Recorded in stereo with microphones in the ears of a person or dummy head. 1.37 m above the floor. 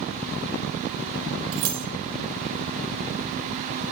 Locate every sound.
1.5 s keys jangling: 40° right (ahead or behind), 1.2 m